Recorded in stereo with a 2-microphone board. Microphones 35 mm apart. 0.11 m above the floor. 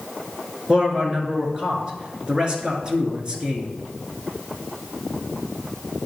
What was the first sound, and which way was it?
A man speaking, 25° right (ahead or behind).